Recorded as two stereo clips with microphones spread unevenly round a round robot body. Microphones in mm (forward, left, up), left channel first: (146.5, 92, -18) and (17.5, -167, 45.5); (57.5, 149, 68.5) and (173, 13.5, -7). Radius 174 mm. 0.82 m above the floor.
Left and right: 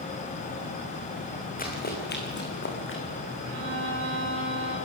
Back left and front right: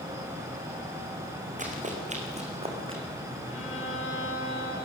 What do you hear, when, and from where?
1.6 s running footsteps: straight ahead, 4.5 m; by 3.0 s 15° left, 4.5 m
3.5 s a violin: 175° right, 5.5 m